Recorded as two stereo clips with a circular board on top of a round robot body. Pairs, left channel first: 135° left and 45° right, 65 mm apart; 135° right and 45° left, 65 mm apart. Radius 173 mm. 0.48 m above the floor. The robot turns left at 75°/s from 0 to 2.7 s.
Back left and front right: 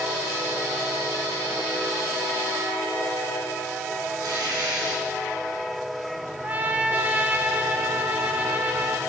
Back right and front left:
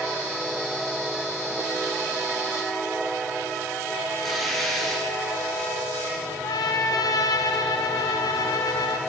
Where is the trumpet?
115° right, 0.7 m.